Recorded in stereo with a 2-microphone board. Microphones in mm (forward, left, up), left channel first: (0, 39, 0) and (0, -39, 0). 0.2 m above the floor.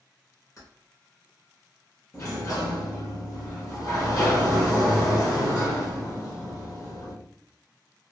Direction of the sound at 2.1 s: 45° left (ahead or behind).